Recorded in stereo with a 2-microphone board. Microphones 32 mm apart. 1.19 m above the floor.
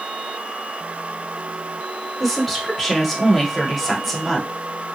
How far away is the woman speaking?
About 1.1 m.